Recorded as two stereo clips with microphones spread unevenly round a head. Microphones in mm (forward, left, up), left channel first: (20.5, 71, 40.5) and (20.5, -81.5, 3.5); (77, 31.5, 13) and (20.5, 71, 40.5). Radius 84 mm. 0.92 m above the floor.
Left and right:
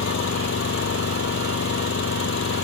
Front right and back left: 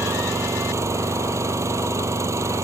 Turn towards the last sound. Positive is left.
turn(degrees=105)